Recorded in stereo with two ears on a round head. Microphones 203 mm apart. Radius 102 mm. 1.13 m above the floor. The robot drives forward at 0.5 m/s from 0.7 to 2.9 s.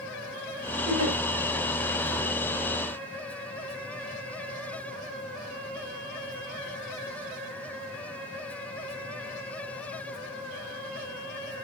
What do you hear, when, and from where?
0.9 s a giggle: 80° right, 4 m